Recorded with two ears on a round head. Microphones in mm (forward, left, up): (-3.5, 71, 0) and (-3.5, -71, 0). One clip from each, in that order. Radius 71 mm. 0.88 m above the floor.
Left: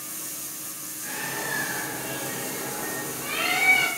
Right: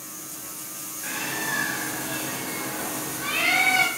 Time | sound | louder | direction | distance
1.0 | a bird | right 2 dB | 50° right (ahead or behind) | 2.5 m